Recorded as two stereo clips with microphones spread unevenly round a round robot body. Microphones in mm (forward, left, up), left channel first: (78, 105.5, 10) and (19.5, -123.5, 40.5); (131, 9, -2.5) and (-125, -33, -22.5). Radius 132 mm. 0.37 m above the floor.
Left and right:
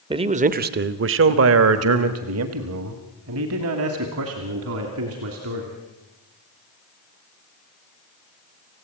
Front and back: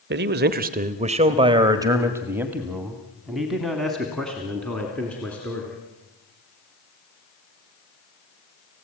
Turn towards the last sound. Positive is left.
turn(degrees=-75)